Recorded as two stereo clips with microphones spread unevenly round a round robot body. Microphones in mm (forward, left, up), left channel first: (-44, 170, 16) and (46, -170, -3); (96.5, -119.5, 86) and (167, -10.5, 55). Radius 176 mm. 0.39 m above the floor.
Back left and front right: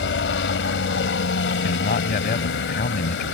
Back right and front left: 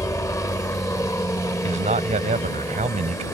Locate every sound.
0.0 s a helicopter: 160° left
1.6 s a man speaking: 40° left